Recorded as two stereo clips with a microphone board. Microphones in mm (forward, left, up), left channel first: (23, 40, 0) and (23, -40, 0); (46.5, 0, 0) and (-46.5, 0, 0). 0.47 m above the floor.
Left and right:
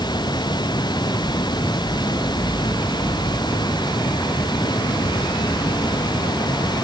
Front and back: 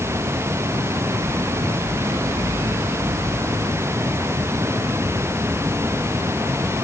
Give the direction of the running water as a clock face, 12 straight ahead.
8 o'clock.